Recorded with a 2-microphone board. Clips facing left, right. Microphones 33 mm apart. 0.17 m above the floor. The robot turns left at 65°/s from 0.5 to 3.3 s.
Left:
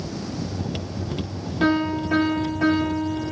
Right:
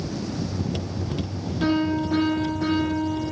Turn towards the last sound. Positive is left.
turn(degrees=30)